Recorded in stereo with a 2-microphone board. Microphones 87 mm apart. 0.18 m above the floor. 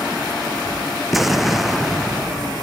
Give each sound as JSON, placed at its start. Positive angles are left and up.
{"t": 1.1, "sound": "an explosion", "side_deg": 0}